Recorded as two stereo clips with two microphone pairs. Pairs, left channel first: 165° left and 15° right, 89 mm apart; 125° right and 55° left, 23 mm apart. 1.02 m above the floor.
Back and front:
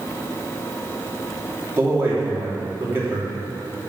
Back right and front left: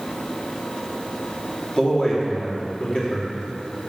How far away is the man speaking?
About 2.5 m.